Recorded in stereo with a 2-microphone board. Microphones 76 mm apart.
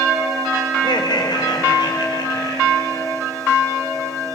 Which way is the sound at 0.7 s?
85° left.